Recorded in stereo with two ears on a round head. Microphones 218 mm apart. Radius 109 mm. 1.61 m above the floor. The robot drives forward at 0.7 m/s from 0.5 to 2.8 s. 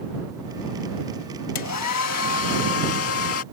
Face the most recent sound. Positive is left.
turn(degrees=65)  # may be behind; listen again after turning